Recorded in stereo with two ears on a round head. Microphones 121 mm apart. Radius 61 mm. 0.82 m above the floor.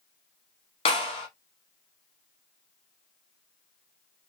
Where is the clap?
40° left (ahead or behind), 0.9 m.